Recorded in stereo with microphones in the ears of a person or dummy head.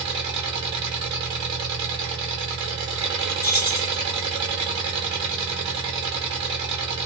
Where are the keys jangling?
20° left (ahead or behind), 0.5 m.